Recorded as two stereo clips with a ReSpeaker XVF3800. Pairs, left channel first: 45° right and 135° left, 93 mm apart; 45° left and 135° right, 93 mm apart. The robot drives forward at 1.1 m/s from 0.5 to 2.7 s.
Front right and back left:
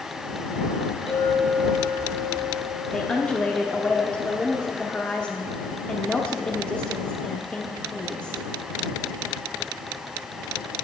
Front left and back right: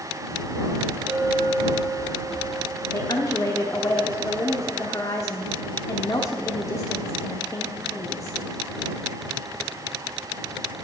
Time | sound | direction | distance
1.1 | a clink | 55° right | 2.5 m
2.9 | a woman speaking | 30° left | 0.8 m